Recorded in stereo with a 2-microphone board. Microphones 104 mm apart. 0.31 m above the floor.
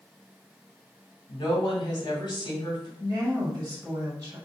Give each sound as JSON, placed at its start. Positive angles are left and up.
{"t": 1.3, "sound": "a woman speaking", "side_deg": 50, "distance_m": 1.6}
{"t": 3.0, "sound": "a woman speaking", "side_deg": -30, "distance_m": 1.9}